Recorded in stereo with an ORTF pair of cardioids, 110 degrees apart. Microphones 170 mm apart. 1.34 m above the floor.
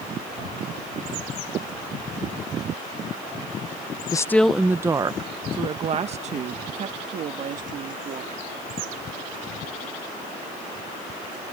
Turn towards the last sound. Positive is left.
turn(degrees=-55)